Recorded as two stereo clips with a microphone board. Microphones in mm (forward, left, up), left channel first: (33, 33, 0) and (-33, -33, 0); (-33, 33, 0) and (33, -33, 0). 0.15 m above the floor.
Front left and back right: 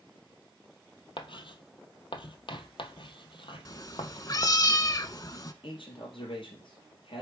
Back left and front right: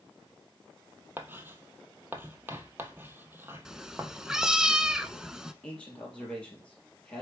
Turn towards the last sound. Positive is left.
turn(degrees=60)